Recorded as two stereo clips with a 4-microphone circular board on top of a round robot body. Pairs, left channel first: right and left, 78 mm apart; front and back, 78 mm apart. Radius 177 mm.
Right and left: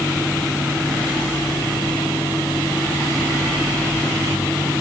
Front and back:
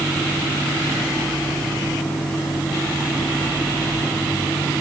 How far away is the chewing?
I don't hear chewing.